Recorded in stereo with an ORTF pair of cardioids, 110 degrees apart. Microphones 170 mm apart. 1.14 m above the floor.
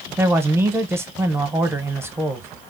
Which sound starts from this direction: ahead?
A man speaking, at 0.2 s.